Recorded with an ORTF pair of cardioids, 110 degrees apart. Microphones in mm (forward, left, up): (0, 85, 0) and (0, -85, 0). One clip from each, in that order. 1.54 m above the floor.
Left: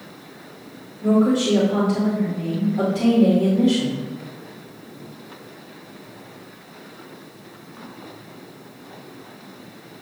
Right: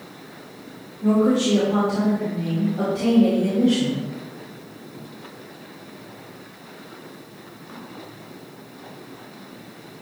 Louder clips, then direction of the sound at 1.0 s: Even; 15° left.